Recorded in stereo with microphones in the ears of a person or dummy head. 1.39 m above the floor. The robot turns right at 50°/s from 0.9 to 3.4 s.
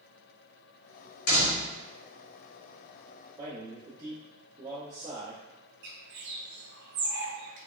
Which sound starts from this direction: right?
A bird, at 5.8 s.